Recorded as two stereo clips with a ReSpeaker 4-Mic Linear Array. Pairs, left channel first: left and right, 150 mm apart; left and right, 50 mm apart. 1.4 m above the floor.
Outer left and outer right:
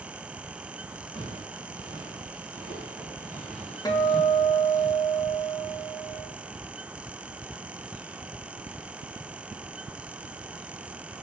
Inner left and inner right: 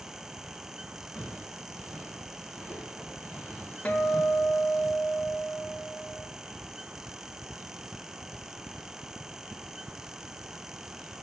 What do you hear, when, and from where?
1.1 s footsteps: 30° left (ahead or behind), 4.5 m; by 4.8 s centre (ahead or behind), 7.5 m
3.9 s a guitar: 25° left (ahead or behind), 1.3 m